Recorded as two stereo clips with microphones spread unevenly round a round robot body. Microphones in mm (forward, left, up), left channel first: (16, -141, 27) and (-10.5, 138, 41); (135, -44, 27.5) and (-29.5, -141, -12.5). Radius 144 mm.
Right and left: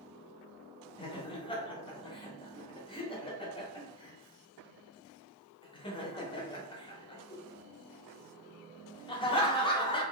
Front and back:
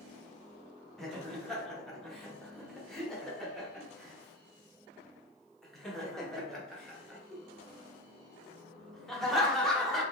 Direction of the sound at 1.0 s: 85° right.